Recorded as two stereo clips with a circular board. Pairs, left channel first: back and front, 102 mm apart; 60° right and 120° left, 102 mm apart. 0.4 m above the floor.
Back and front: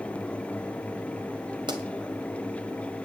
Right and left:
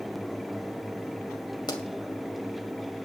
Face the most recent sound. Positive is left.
turn(degrees=-30)